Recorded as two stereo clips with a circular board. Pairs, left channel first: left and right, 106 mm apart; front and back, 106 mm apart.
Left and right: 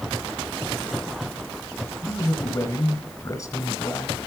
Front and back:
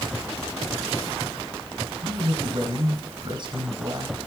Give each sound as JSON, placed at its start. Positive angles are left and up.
{"t": 2.0, "sound": "a man speaking", "azimuth_deg": 140, "distance_m": 1.9}